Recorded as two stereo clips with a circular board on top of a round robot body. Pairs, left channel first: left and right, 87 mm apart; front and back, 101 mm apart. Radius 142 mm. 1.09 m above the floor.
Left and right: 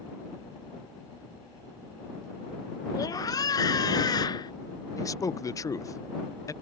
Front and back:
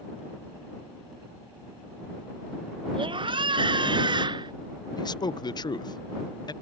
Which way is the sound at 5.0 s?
40° left.